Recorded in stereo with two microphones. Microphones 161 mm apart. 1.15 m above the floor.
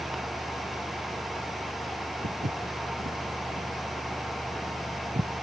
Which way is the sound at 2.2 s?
60° right (ahead or behind).